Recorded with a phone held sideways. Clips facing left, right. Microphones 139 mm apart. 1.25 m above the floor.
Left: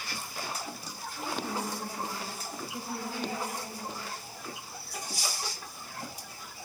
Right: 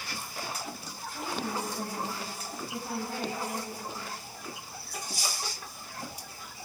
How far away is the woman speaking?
About 7.5 m.